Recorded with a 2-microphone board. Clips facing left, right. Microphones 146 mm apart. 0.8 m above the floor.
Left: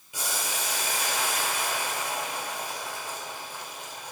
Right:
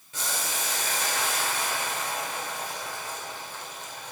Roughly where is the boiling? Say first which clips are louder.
Even; centre.